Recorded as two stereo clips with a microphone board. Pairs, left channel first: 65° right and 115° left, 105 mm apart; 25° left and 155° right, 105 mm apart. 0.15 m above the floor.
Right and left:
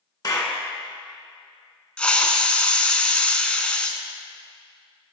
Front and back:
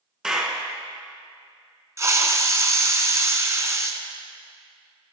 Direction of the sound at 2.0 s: 135° right.